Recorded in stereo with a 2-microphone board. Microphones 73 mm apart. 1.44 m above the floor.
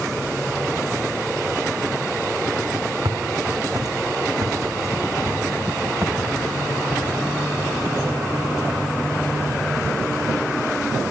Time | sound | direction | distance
3.0 | footsteps | 60° right (ahead or behind) | 4 m